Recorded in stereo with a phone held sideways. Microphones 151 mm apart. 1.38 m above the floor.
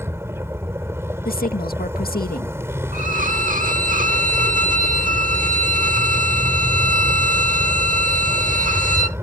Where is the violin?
60° right (ahead or behind).